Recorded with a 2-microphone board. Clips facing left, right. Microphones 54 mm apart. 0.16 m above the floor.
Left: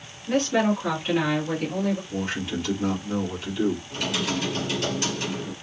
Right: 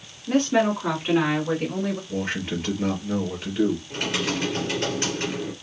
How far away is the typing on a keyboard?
About 2.5 m.